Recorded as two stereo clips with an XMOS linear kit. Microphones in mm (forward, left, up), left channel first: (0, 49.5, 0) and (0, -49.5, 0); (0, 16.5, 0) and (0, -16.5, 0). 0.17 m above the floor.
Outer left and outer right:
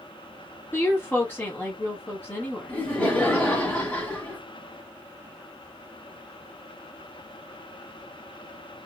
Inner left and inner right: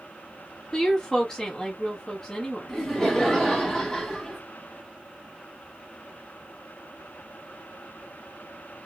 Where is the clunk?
No clunk in this recording.